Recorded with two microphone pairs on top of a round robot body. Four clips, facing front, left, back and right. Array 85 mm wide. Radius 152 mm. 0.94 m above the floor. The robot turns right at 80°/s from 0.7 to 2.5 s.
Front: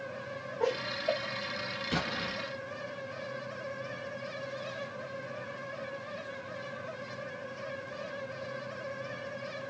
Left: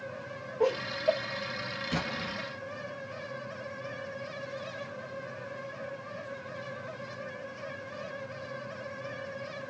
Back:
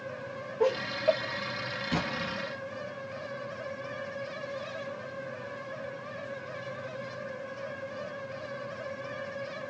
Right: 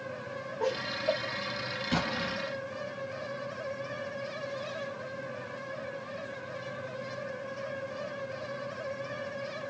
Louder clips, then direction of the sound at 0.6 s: Left 4 dB, back 5 dB; 125° left.